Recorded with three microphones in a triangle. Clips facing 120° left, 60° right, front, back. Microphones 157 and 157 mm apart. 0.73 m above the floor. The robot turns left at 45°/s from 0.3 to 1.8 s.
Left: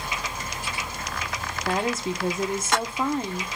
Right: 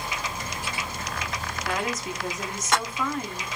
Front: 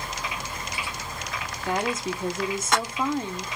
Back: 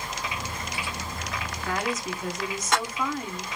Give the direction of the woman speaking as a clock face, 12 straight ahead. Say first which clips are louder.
Left 4 dB, front 3 dB; 10 o'clock.